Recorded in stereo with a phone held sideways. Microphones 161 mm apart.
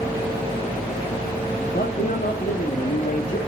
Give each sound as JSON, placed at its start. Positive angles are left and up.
{"t": 1.7, "sound": "a man speaking", "side_deg": 65, "distance_m": 1.8}